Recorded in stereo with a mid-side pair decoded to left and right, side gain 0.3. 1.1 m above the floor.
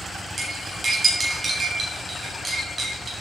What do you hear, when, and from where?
0.4 s cutlery clinking: 50° right, 3.5 m